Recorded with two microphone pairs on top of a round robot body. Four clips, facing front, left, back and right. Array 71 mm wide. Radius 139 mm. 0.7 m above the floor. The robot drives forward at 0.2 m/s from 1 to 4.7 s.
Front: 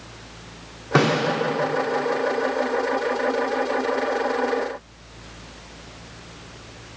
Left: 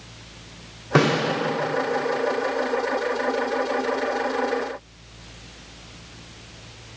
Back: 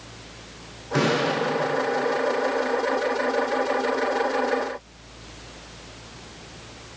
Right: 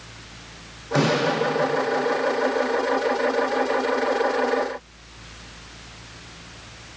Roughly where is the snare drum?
Ahead left.